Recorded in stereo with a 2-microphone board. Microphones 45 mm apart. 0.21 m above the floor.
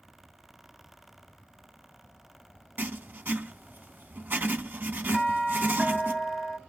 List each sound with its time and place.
2.8 s writing: 45° right (ahead or behind), 0.5 m
5.1 s a doorbell: 10° right (ahead or behind), 1.8 m